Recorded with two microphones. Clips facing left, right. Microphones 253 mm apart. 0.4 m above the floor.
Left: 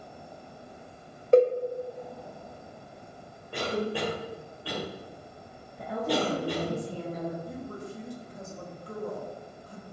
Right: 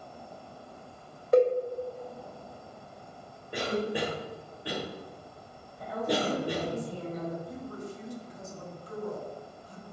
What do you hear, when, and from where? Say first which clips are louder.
1.3 s a cowbell: left 2 dB; 30° left (ahead or behind), 1.4 m
3.5 s a cough: even; 20° right (ahead or behind), 1.9 m
5.8 s a woman speaking: left 1 dB; 65° left (ahead or behind), 2 m
7.5 s a woman speaking: left 1 dB; 60° left (ahead or behind), 2.5 m